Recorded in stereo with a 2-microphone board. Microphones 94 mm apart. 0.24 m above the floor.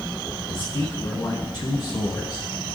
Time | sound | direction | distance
0.5 | a man speaking | 50° left (ahead or behind) | 2.5 m